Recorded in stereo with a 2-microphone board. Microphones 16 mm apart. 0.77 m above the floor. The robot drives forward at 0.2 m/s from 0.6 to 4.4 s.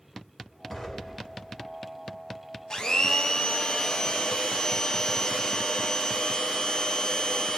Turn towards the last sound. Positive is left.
turn(degrees=45)  # may be behind; listen again after turning